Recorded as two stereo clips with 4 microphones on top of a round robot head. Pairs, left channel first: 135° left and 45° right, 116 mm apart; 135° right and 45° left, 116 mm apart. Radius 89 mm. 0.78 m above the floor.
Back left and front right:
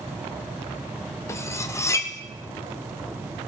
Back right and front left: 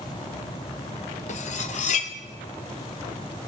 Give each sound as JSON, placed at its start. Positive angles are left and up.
{"t": 1.3, "sound": "cutlery clinking", "azimuth_deg": -155, "distance_m": 1.2}